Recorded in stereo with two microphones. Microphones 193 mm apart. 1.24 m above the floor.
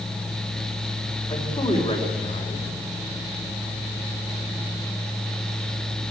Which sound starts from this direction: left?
A man speaking, at 1.3 s.